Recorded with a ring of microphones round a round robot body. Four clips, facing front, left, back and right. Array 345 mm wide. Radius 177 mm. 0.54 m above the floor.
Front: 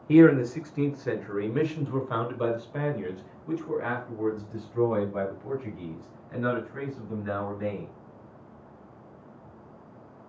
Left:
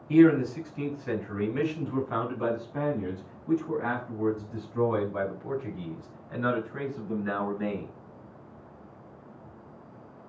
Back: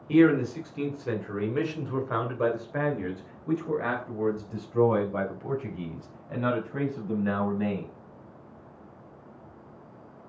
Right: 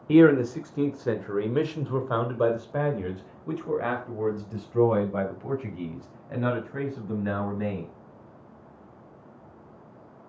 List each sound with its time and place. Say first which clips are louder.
0.1 s a man speaking: right 2 dB, front 3 dB; 70° right, 2.5 m; by 7.9 s 130° right, 5 m